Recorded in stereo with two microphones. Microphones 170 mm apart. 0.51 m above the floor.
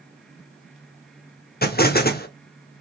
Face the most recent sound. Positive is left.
turn(degrees=60)  # may be behind; listen again after turning